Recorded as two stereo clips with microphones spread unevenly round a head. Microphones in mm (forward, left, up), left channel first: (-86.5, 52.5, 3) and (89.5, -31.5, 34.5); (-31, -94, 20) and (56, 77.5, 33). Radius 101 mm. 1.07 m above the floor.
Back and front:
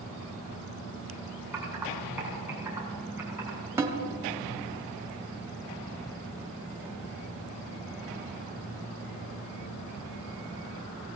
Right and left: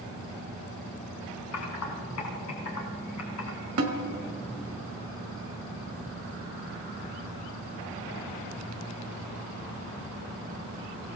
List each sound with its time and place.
1.5 s typing on a keyboard: 105° right, 3.5 m
3.8 s a snare drum: 55° left, 1.8 m